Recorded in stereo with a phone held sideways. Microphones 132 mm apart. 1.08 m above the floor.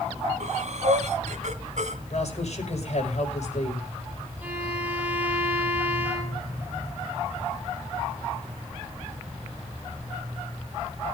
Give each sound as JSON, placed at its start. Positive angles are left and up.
{"t": 0.4, "sound": "breathing", "side_deg": -65, "distance_m": 1.8}
{"t": 2.1, "sound": "a woman speaking", "side_deg": 60, "distance_m": 5.5}
{"t": 4.4, "sound": "a violin", "side_deg": -10, "distance_m": 4.0}